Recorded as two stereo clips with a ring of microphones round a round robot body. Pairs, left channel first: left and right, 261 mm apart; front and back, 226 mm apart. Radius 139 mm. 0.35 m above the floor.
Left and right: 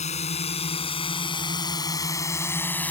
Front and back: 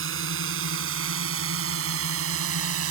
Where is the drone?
155° left; by 2.9 s 175° left.